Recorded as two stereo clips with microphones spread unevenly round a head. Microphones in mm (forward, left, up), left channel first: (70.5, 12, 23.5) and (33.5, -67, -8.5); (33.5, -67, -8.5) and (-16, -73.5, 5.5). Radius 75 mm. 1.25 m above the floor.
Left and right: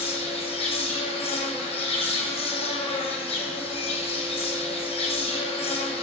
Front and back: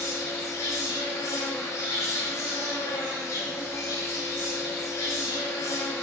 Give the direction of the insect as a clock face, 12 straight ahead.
10 o'clock.